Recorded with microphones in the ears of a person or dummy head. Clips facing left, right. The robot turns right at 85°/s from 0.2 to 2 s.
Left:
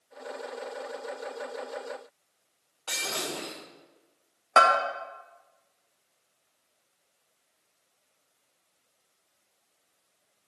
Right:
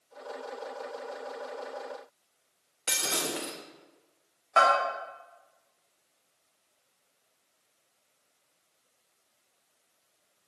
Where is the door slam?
No door slam in this recording.